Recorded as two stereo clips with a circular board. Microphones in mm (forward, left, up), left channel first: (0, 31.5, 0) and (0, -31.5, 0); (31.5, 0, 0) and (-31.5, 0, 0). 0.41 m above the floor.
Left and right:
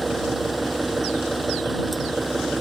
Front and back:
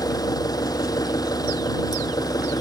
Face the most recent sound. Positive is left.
turn(degrees=0)